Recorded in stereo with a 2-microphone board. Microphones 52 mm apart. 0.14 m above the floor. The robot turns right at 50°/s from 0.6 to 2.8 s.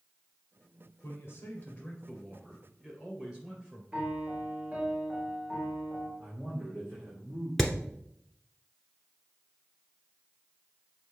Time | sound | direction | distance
1.0 | a man speaking | 115° left | 2.5 m
3.9 | a piano | 30° right (ahead or behind) | 1.9 m
6.2 | a man speaking | 50° right (ahead or behind) | 3.5 m
7.6 | hammering | centre (ahead or behind) | 1.0 m